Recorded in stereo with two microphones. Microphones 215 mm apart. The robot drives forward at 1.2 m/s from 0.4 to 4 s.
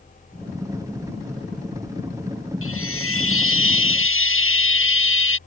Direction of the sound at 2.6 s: 90° left.